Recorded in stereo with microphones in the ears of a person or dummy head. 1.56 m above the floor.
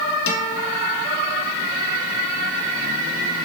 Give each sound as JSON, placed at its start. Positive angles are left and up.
{"t": 0.3, "sound": "a guitar", "side_deg": 75, "distance_m": 2.5}